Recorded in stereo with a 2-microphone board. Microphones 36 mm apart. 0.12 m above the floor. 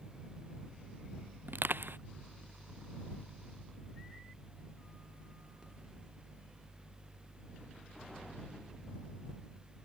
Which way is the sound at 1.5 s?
75° right (ahead or behind).